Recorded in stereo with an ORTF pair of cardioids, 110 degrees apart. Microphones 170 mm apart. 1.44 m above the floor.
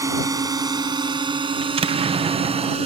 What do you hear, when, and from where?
0.0 s a drone: 20° right; by 2.9 s 35° right
1.6 s an explosion: 35° right